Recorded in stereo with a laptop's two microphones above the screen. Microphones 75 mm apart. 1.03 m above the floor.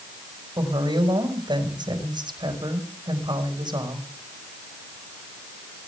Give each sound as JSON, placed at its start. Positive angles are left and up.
{"t": 0.6, "sound": "a woman speaking", "side_deg": -85, "distance_m": 5.5}